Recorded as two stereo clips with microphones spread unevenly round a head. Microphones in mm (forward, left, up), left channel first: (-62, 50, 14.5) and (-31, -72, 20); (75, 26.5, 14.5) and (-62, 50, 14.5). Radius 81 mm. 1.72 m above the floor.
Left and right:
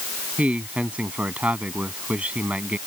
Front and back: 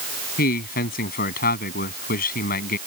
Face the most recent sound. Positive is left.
turn(degrees=5)